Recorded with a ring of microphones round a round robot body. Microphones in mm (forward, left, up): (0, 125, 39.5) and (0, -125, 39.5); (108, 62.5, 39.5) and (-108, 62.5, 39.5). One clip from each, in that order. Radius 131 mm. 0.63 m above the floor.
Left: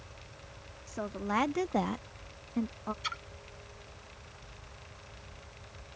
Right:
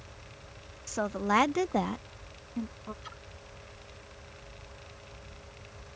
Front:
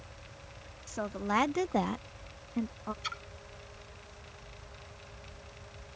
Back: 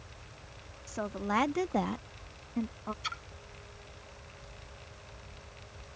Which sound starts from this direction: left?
A splash, at 3.0 s.